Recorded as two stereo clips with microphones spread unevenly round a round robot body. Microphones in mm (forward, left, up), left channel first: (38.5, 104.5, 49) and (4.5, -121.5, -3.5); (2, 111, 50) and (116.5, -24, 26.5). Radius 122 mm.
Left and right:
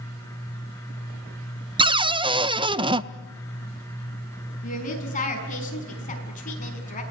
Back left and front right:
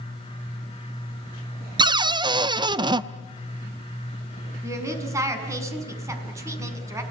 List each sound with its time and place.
1.8 s a cupboard door: 75° right, 0.7 m
4.6 s a woman speaking: 25° left, 5.5 m